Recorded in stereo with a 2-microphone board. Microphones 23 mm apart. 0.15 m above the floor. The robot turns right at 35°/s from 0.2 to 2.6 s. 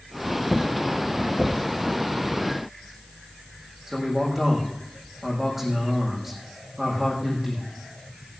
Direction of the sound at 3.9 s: 10° right (ahead or behind).